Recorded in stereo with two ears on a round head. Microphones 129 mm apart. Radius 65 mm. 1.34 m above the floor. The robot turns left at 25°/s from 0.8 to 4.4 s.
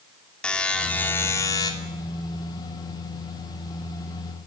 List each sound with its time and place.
0.4 s a buzzer: 10° left (ahead or behind), 2.5 m; by 1.7 s 30° left (ahead or behind), 2.5 m